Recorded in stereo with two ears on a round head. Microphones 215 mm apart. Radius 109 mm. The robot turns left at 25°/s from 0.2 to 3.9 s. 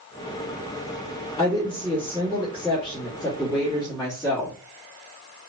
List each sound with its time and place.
1.4 s a woman speaking: 20° left (ahead or behind), 1.1 m; by 4.5 s 15° left (ahead or behind), 1.1 m